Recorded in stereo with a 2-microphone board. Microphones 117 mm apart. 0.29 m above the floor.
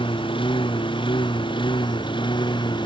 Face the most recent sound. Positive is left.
turn(degrees=40)  # may be behind; listen again after turning